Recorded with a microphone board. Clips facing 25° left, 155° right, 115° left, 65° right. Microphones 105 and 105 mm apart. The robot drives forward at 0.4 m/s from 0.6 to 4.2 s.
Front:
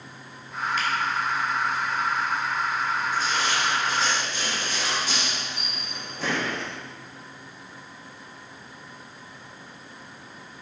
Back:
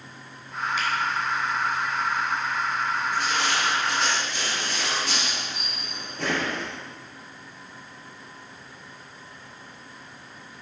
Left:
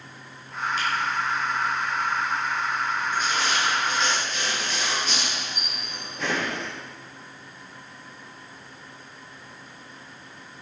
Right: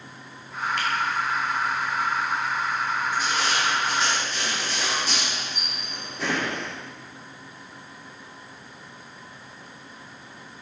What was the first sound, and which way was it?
A finger snap, 80° right.